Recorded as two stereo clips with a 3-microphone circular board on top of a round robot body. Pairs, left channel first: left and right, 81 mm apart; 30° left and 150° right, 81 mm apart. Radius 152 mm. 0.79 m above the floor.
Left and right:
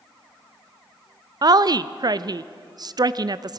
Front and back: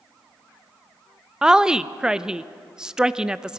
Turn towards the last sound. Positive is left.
turn(degrees=-70)